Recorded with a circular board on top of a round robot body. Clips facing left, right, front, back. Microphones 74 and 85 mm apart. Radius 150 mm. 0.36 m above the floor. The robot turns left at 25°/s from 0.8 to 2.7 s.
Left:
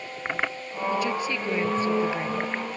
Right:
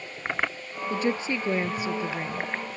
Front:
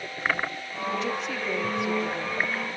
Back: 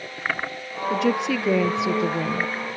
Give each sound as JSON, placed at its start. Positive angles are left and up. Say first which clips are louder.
{"t": 0.9, "sound": "a woman speaking", "louder": "right 1 dB, back 9 dB", "azimuth_deg": -145}